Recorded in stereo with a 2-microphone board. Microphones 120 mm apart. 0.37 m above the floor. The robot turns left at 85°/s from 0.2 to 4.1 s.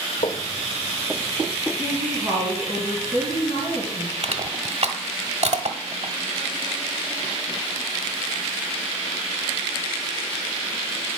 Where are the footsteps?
70° left (ahead or behind), 1.0 m; by 2.8 s 60° left (ahead or behind), 0.8 m.